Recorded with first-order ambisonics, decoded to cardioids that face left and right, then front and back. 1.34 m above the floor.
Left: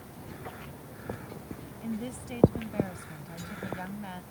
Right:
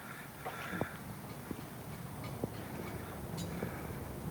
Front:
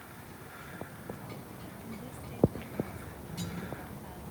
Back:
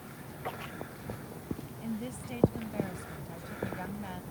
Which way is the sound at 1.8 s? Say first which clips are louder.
Left 8 dB, back 5 dB; 115° left.